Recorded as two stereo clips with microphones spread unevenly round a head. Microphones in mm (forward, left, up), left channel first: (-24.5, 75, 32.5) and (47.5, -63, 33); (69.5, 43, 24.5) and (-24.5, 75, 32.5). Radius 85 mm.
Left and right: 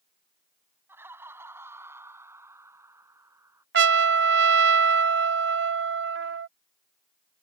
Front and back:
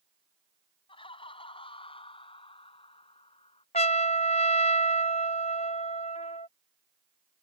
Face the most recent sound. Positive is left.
turn(degrees=-75)